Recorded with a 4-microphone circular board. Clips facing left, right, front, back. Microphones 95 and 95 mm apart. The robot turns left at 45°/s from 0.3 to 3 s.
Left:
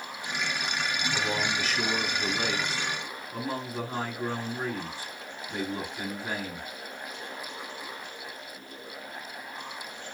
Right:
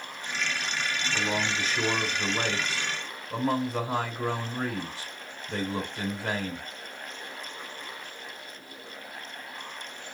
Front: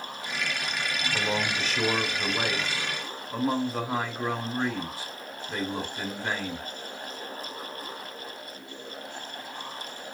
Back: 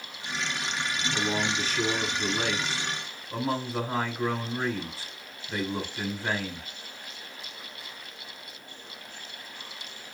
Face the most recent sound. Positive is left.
turn(degrees=-90)